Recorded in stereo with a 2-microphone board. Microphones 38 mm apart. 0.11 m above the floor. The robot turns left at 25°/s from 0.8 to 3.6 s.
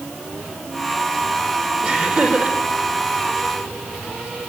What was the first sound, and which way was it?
Laughter, 30° right (ahead or behind).